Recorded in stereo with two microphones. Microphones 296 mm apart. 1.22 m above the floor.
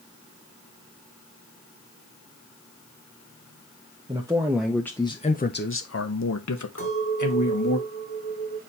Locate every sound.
4.1 s a man speaking: 15° right (ahead or behind), 1.1 m; by 7.8 s 80° left, 1.5 m
6.8 s a clink: 45° left (ahead or behind), 3.5 m